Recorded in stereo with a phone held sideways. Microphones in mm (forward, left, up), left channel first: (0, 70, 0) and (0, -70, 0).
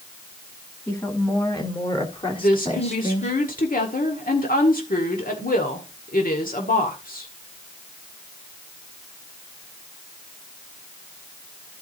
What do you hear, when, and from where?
0.9 s a woman speaking: 20° left (ahead or behind), 3 m; by 3.3 s 55° left (ahead or behind), 2 m
2.4 s a woman speaking: 80° left, 1.7 m